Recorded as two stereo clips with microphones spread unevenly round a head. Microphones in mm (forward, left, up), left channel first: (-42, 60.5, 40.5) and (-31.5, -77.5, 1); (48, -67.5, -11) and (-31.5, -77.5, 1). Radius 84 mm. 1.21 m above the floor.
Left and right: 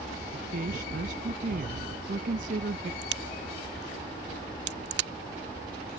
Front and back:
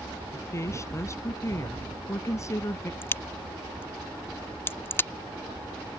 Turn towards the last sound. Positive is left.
turn(degrees=-55)